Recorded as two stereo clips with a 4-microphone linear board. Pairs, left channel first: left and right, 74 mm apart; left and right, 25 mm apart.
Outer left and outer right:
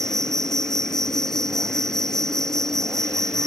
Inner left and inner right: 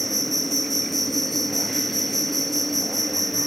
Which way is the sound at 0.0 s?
5° left (ahead or behind).